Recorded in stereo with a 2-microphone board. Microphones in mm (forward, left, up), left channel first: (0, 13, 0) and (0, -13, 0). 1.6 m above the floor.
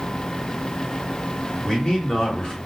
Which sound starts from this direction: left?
A man speaking, at 1.6 s.